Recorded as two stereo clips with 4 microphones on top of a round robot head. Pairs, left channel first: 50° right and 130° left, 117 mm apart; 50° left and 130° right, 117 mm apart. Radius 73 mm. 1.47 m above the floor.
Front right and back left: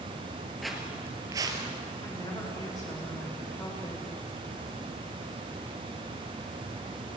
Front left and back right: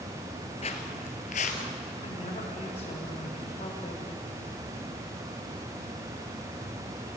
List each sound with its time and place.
0.6 s footsteps: 35° left, 1.7 m; by 1.7 s 75° left, 2 m
2.0 s a woman speaking: 10° left, 6.5 m